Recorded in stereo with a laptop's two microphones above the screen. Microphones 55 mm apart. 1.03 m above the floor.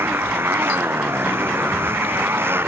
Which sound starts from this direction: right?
A motorcycle, at 0.0 s.